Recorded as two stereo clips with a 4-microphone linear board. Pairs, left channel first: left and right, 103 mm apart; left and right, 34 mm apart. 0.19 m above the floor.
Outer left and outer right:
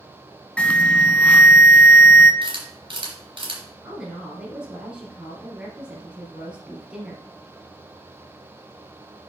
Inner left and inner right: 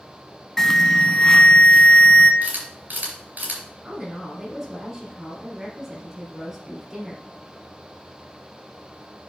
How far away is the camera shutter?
About 4 m.